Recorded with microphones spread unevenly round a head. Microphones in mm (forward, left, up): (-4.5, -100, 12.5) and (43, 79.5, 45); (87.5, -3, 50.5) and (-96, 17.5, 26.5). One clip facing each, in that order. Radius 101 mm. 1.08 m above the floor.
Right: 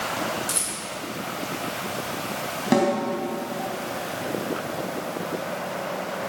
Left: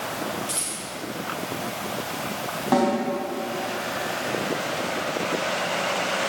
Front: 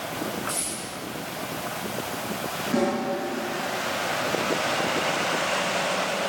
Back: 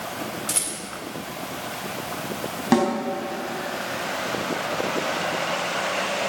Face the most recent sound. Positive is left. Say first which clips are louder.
# right 1 dB, back 4 dB
turn(degrees=-175)